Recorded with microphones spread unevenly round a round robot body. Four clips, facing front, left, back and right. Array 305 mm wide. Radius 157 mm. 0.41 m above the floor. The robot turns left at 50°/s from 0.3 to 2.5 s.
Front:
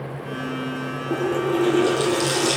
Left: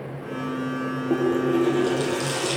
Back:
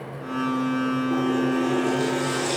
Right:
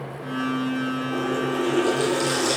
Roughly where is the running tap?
Left.